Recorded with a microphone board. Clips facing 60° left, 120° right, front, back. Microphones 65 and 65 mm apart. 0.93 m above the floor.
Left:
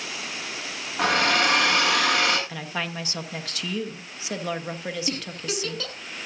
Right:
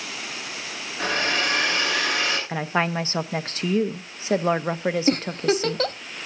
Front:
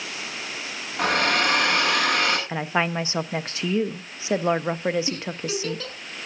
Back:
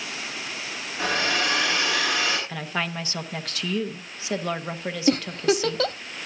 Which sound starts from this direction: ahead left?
A hair dryer, at 1.0 s.